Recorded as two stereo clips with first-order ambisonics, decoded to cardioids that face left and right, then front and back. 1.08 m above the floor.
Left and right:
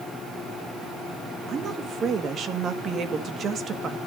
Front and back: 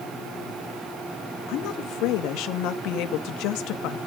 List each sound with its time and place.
1.5 s a woman speaking: 30° right, 1.7 m